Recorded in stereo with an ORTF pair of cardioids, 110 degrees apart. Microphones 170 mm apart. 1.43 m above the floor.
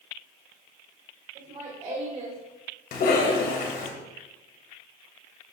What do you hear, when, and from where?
1.4 s laughter: 50° right, 3.5 m; by 2.4 s 40° right, 4 m
2.9 s a cough: 65° left, 2.5 m